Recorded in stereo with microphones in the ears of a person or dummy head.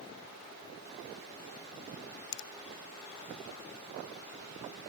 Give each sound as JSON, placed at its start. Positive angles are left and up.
{"t": 2.3, "sound": "a finger snap", "side_deg": 65, "distance_m": 0.8}